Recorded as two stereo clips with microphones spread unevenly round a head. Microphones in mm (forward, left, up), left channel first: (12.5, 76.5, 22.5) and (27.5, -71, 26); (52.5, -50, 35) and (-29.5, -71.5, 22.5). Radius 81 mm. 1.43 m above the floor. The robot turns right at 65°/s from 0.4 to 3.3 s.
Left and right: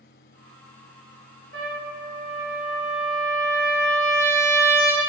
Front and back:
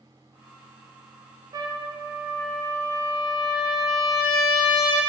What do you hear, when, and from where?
1.5 s a trumpet: 125° right, 0.7 m; by 5.1 s 10° right, 0.7 m